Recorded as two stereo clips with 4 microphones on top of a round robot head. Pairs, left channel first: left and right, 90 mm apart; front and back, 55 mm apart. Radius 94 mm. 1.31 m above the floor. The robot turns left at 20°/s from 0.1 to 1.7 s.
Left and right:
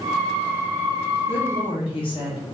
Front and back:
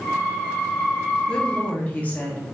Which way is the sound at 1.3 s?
75° left.